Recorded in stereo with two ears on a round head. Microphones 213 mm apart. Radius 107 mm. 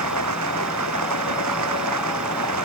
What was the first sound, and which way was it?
Running water, 75° right (ahead or behind).